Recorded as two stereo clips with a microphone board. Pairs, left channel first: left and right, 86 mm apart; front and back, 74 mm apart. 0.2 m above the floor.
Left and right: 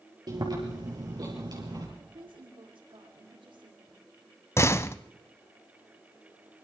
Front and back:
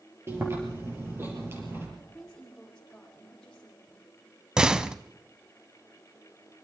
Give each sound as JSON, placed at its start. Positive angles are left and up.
{"t": 0.3, "sound": "chewing", "azimuth_deg": -125, "distance_m": 6.0}
{"t": 2.0, "sound": "a woman speaking", "azimuth_deg": -85, "distance_m": 9.0}
{"t": 4.6, "sound": "a door slam", "azimuth_deg": 110, "distance_m": 0.8}